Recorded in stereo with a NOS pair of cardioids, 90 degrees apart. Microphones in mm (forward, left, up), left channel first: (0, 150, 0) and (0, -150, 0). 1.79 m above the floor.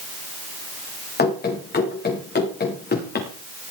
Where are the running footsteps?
30° left, 7 m.